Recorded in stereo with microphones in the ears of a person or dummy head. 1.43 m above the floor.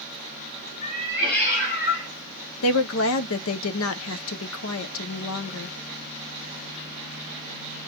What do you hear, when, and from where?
0.8 s a cat meowing: 35° left (ahead or behind), 1.5 m; by 2.1 s 55° left (ahead or behind), 1.9 m
2.6 s a woman speaking: 75° left (ahead or behind), 0.7 m